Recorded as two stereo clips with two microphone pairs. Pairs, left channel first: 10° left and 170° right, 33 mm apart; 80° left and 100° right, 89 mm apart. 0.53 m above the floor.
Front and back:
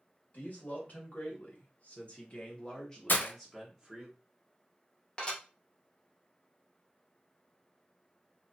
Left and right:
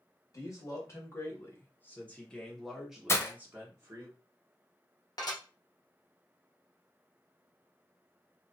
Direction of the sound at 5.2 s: 60° left.